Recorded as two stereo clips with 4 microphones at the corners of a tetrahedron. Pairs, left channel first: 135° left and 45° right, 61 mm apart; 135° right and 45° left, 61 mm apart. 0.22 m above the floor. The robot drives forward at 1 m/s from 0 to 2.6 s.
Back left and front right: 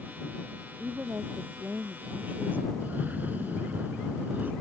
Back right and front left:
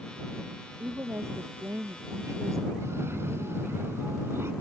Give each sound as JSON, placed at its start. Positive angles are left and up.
{"t": 0.8, "sound": "a woman speaking", "azimuth_deg": 10}
{"t": 2.8, "sound": "a cough", "azimuth_deg": 10}